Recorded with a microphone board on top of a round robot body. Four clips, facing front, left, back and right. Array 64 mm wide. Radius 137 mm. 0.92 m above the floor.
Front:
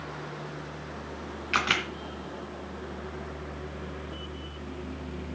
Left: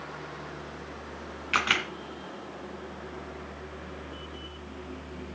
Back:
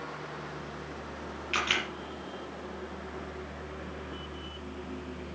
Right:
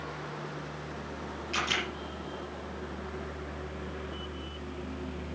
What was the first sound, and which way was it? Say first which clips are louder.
A camera shutter: left 5 dB, front 4 dB; 50° left.